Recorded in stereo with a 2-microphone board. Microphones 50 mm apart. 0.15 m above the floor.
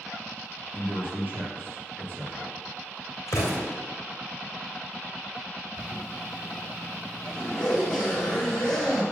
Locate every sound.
0.7 s a man speaking: 35° right (ahead or behind), 3 m
3.3 s an explosion: 70° left (ahead or behind), 3 m
5.8 s a zipper: 15° left (ahead or behind), 3 m